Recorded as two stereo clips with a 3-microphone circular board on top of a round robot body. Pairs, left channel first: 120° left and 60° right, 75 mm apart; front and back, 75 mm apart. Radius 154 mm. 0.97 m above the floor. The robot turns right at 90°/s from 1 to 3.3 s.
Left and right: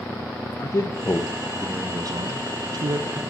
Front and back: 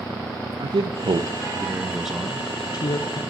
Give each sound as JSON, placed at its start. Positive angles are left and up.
{"t": 0.6, "sound": "a man speaking", "azimuth_deg": 170, "distance_m": 1.0}